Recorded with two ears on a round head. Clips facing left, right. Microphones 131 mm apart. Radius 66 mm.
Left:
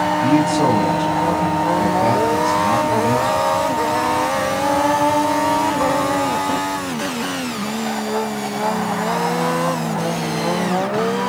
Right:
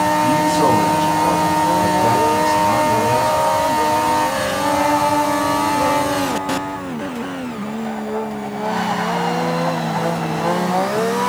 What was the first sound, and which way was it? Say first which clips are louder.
A man speaking: left 2 dB; 20° left (ahead or behind).